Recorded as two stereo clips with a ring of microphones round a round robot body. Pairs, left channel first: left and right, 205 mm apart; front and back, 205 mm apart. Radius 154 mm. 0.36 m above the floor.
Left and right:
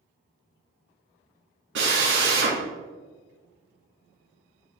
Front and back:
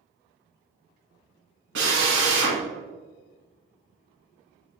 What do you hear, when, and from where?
1.8 s a drill: 135° right, 2 m